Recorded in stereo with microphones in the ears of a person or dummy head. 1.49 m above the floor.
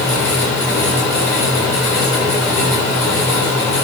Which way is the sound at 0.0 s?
20° left (ahead or behind).